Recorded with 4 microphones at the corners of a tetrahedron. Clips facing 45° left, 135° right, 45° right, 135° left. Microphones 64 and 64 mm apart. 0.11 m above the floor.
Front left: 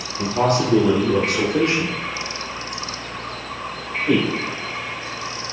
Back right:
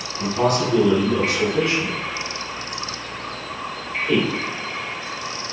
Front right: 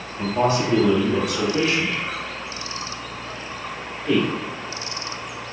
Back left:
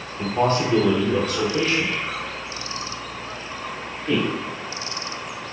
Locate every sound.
0.2 s a man speaking: 25° left, 1.7 m; by 4.3 s 35° left, 3.5 m